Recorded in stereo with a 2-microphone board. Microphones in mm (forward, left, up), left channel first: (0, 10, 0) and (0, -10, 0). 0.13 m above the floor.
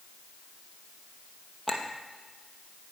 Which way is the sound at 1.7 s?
20° left (ahead or behind).